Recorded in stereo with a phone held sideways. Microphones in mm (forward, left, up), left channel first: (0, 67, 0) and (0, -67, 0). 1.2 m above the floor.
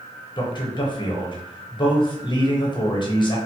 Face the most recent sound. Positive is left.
turn(degrees=35)  # may be behind; listen again after turning